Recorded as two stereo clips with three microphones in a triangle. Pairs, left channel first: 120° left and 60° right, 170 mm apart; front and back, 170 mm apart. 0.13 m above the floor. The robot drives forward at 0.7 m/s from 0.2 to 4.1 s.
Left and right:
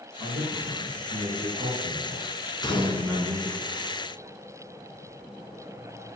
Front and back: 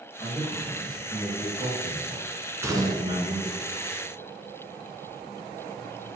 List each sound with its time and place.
0.2 s a man speaking: 85° right, 3.5 m; by 3.6 s 125° right, 4 m
2.6 s a gunshot: 125° left, 0.9 m; by 3.3 s 160° left, 1.1 m